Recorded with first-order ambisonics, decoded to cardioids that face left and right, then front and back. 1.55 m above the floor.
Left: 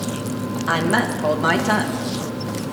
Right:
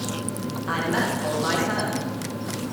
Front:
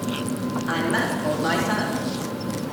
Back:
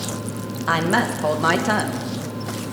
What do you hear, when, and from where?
0.7 s a woman speaking: 150° left, 1.7 m